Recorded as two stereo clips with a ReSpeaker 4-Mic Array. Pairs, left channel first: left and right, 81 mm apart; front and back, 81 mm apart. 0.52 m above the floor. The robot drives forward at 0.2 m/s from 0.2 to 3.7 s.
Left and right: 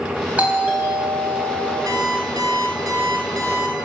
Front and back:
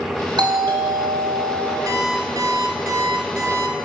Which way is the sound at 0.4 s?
160° right.